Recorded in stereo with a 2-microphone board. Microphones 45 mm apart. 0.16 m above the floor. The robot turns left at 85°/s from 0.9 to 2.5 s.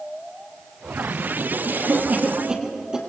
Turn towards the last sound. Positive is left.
turn(degrees=-20)  # may be behind; listen again after turning